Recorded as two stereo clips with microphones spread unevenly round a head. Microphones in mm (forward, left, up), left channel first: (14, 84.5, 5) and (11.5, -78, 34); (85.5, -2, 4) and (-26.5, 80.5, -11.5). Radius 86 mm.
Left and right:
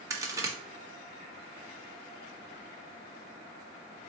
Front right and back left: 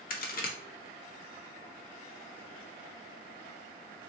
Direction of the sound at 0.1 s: 15° right.